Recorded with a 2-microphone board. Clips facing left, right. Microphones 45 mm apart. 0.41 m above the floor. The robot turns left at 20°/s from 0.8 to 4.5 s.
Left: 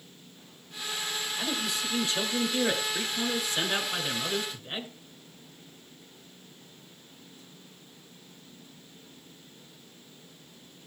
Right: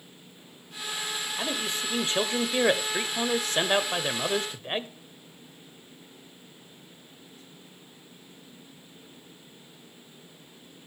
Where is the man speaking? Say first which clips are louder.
Right 1 dB; 35° right, 1.2 m; by 4.9 s 100° right, 1.2 m.